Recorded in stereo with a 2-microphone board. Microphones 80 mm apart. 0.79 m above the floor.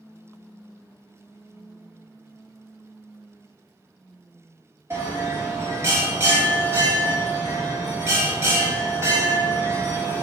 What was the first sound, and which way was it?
A bell, 30° right (ahead or behind).